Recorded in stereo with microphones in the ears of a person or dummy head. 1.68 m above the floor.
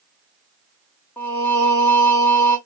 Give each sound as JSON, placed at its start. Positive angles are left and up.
{"t": 1.2, "sound": "singing", "side_deg": 10, "distance_m": 0.9}